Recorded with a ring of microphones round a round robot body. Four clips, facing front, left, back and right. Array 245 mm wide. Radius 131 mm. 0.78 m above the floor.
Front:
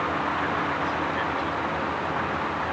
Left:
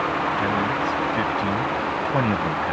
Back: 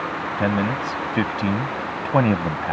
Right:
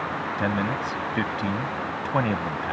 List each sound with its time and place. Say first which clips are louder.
0.4 s a man speaking: left 3 dB, back 4 dB; 170° right; by 2.7 s 165° left